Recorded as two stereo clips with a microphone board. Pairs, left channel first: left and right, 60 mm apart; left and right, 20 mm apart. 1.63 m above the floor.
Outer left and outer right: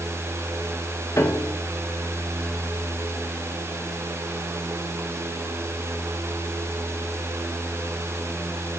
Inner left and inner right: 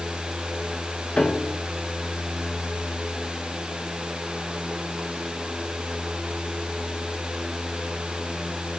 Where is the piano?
45° left (ahead or behind), 1.2 m.